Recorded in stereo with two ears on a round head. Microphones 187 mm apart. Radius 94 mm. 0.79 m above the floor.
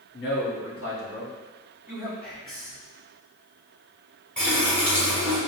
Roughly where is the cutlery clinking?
No cutlery clinking in this recording.